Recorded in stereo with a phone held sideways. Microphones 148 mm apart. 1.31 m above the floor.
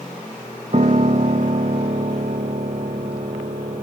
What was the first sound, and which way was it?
A piano, 50° right (ahead or behind).